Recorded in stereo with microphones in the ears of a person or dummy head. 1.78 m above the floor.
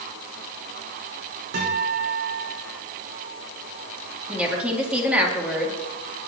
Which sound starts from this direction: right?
A guitar, at 1.5 s.